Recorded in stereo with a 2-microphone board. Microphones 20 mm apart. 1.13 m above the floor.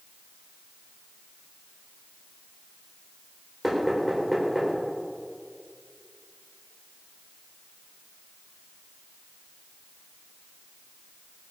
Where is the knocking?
5° right (ahead or behind), 4 m.